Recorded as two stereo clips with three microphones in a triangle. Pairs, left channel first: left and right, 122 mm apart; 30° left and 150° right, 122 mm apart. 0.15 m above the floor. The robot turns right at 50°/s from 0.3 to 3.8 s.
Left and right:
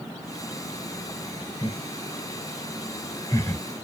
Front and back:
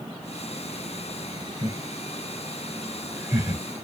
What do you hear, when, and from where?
1.6 s laughter: 60° left, 1.8 m; by 3.6 s 165° left, 1.8 m